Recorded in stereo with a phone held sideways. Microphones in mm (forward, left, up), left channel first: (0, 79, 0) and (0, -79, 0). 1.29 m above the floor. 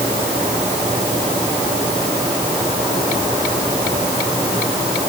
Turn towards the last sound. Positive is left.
No sound to turn to.